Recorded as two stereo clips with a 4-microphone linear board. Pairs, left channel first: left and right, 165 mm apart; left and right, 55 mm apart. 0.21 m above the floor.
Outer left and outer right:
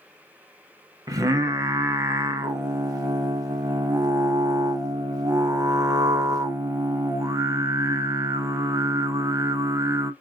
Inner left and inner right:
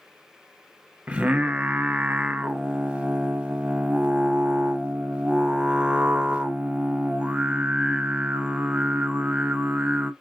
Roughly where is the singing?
Right.